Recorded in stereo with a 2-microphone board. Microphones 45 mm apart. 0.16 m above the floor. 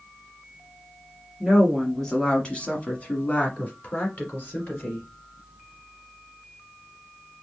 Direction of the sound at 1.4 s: Centre (ahead or behind).